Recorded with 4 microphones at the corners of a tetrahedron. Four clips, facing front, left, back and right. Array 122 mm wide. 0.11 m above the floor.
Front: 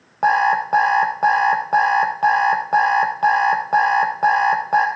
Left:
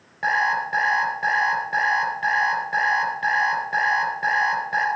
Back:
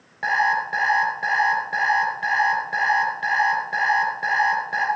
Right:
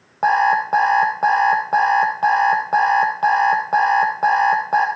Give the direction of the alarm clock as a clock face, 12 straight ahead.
2 o'clock.